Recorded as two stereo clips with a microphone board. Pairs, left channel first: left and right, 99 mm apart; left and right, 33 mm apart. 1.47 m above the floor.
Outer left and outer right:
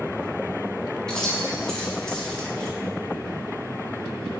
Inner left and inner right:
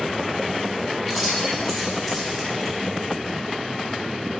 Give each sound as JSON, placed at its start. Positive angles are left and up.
{"t": 1.1, "sound": "keys jangling", "side_deg": 5, "distance_m": 2.0}